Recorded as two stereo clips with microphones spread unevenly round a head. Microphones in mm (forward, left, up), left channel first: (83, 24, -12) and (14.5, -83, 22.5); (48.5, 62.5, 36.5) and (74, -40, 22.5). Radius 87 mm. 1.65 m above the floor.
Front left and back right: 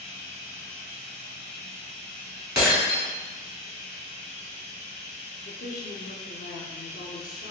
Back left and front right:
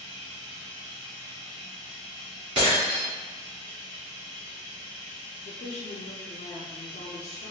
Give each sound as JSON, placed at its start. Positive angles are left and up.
{"t": 0.0, "sound": "running water", "azimuth_deg": -95, "distance_m": 1.0}
{"t": 2.5, "sound": "breaking glass", "azimuth_deg": -70, "distance_m": 1.8}
{"t": 5.5, "sound": "a woman speaking", "azimuth_deg": 90, "distance_m": 0.5}